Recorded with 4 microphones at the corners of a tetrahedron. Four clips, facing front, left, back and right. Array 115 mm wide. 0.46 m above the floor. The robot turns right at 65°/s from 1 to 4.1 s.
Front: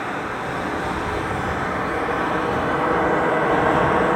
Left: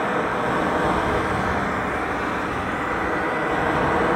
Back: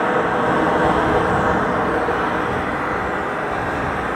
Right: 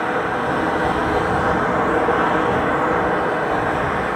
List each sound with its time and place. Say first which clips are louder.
0.0 s running water: right 2 dB, back 9 dB; 175° right, 4.5 m; by 4.2 s 25° left, 4.5 m